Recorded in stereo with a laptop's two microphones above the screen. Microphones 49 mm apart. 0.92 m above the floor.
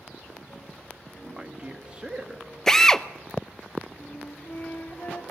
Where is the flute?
40° left (ahead or behind), 2.0 m.